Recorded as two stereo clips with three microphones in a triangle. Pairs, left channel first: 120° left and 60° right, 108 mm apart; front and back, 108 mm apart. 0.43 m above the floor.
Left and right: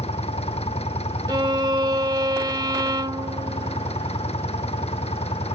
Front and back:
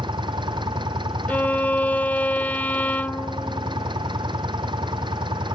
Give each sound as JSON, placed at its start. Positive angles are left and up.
{"t": 0.0, "sound": "an engine running", "azimuth_deg": 135}
{"t": 1.3, "sound": "a violin", "azimuth_deg": -65}